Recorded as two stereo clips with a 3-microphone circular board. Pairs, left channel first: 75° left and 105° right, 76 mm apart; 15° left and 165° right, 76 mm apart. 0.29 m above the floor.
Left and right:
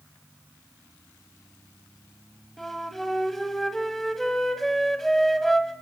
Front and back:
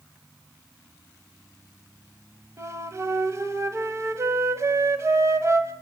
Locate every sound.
2.6 s a flute: 160° left, 1.7 m